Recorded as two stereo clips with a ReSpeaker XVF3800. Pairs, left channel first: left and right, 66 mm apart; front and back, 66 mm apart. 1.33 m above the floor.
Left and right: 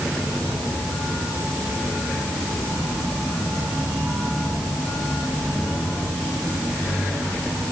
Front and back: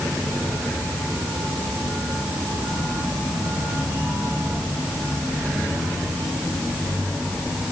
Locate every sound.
Only background noise.